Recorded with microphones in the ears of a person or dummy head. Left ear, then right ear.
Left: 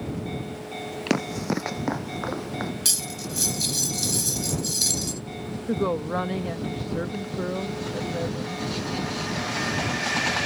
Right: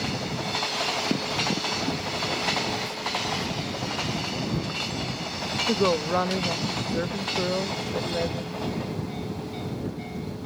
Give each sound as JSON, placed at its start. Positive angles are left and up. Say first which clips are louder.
{"t": 1.1, "sound": "running footsteps", "louder": "right 1 dB", "side_deg": 60}
{"t": 2.9, "sound": "cutlery clinking", "louder": "even", "side_deg": 85}
{"t": 5.7, "sound": "a woman speaking", "louder": "right 2 dB", "side_deg": -15}